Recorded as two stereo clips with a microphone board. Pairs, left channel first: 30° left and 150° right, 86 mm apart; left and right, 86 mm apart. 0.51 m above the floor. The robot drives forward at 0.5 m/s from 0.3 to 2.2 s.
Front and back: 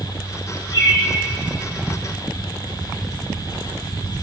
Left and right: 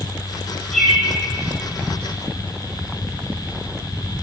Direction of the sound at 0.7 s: 5° left.